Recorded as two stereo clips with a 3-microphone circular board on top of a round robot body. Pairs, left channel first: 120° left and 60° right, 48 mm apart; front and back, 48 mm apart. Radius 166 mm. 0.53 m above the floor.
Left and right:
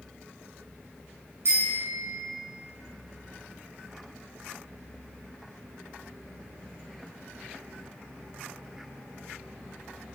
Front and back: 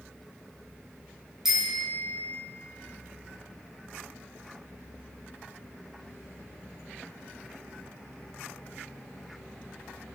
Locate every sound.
1.4 s a bicycle bell: 95° right, 5 m